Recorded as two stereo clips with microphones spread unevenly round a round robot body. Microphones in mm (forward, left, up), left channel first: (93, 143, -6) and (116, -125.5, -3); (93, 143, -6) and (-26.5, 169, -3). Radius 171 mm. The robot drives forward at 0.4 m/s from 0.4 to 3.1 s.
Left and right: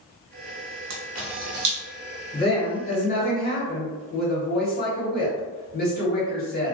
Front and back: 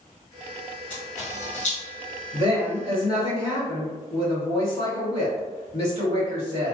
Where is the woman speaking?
145° left, 1.8 m; by 6.7 s 150° left, 2 m.